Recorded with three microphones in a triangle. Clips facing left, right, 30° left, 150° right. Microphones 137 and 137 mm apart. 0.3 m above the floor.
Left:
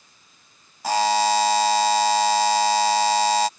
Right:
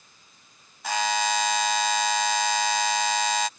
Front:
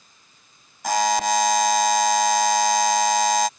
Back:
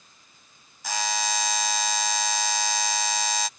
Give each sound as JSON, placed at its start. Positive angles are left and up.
{"t": 0.8, "sound": "a buzzer", "azimuth_deg": 45}